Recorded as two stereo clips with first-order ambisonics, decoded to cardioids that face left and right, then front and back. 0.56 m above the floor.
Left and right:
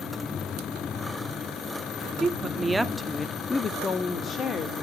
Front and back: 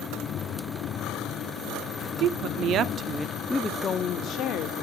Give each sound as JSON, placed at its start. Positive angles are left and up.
{"t": 2.2, "sound": "a woman speaking", "azimuth_deg": -165, "distance_m": 1.1}